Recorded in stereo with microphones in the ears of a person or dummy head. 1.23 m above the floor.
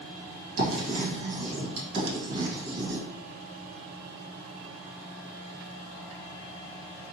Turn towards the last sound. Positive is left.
turn(degrees=-70)  # may be behind; listen again after turning